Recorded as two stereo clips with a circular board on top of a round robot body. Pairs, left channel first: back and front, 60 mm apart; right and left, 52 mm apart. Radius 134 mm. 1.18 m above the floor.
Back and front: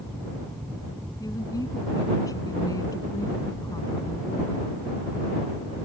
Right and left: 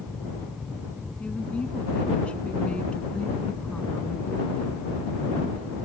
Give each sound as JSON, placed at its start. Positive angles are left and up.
{"t": 1.2, "sound": "a woman speaking", "azimuth_deg": -160}